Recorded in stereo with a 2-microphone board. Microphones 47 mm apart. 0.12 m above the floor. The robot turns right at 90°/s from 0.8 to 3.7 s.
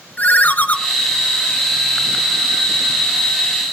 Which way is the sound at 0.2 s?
35° left (ahead or behind).